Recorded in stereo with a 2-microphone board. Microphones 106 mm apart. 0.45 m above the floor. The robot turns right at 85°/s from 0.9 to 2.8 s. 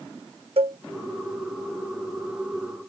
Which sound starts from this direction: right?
A cowbell, at 0.6 s.